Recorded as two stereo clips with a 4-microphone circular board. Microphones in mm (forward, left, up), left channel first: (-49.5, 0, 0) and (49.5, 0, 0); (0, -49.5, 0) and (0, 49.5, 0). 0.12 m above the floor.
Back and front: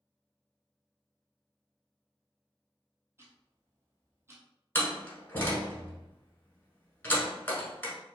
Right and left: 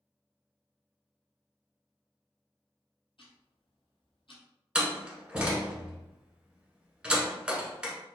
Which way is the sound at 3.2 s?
60° right.